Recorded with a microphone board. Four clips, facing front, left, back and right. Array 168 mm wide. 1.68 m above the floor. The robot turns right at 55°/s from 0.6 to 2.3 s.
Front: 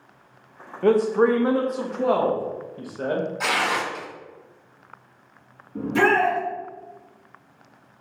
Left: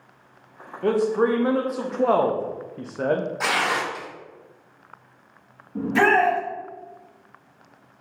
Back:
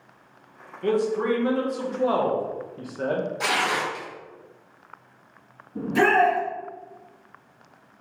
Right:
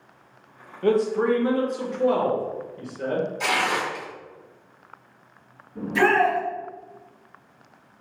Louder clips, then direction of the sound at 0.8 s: Even, front 5 dB; 10° left.